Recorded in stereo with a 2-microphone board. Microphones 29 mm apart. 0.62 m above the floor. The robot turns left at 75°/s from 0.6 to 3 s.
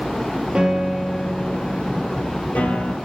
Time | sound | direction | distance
0.6 | a piano | 155° right | 2.5 m